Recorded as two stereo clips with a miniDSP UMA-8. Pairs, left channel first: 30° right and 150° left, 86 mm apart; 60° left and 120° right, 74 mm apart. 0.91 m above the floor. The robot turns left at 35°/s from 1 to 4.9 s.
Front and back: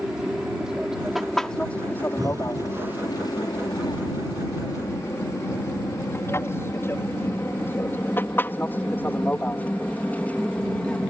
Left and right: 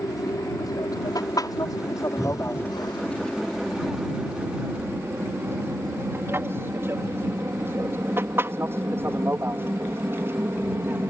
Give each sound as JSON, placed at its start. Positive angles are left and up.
{"t": 0.0, "sound": "an aircraft", "azimuth_deg": 70}
{"t": 2.2, "sound": "breathing", "azimuth_deg": 105}